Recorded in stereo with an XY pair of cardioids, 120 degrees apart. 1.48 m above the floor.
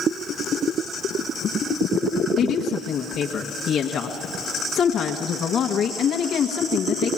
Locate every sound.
2.4 s a woman speaking: 55° left, 1.6 m